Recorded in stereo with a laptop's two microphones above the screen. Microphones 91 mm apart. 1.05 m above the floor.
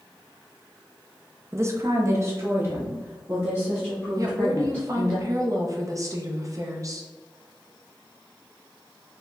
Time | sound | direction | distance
1.5 | a woman speaking | 30° right (ahead or behind) | 0.6 m
4.2 | a woman speaking | 35° right (ahead or behind) | 0.9 m